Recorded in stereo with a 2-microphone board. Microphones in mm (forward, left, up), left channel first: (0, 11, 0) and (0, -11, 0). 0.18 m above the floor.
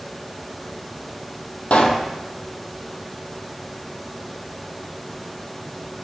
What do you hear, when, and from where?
1.7 s a pop: 75° left (ahead or behind), 0.9 m